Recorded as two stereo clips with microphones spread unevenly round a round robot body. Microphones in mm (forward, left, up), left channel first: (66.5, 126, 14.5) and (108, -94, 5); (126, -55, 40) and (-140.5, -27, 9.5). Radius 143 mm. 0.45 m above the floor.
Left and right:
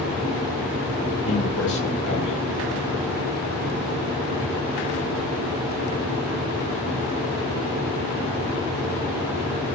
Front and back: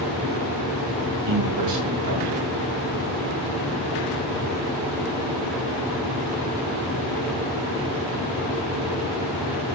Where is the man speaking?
155° left, 5.5 m.